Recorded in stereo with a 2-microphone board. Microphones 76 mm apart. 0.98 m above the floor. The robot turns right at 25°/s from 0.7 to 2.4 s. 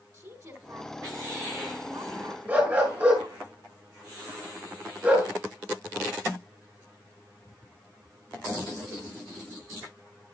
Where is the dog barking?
20° right (ahead or behind), 6.5 m.